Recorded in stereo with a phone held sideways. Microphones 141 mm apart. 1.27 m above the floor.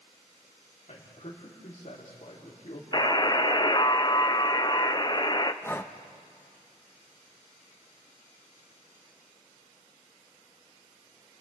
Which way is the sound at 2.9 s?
30° left (ahead or behind).